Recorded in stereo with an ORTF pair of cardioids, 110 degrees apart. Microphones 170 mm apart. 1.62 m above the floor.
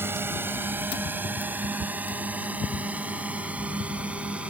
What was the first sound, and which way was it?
A drone, 15° right.